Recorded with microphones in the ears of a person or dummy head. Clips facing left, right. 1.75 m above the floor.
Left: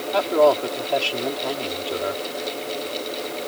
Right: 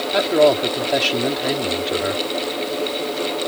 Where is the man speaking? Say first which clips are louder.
Right 2 dB; 25° right (ahead or behind).